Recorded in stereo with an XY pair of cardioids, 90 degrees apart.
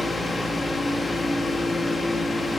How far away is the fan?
About 1.4 m.